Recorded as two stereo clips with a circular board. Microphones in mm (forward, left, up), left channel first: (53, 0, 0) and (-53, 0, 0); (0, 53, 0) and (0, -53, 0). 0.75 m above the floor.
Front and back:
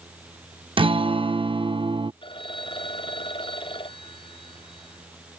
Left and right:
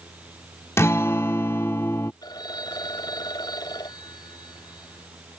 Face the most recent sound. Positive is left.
turn(degrees=40)